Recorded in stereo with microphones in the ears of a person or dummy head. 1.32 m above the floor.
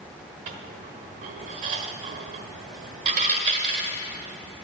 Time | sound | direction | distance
0.5 | a dropped coin | 40° right (ahead or behind) | 1.4 m